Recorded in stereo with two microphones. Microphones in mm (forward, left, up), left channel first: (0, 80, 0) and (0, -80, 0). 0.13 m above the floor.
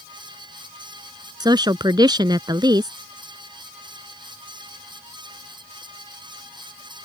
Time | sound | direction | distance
1.4 | a woman speaking | 25° right (ahead or behind) | ?